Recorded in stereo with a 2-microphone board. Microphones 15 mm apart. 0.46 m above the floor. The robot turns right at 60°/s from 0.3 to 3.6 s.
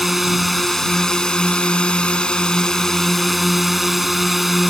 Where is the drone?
5° right; by 4.7 s 170° right.